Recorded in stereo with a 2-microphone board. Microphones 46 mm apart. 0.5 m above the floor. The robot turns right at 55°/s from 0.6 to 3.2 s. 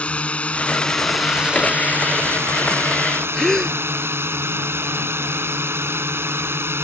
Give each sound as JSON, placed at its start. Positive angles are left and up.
{"t": 0.0, "sound": "a drone", "azimuth_deg": 150}
{"t": 3.3, "sound": "a gasp", "side_deg": 10}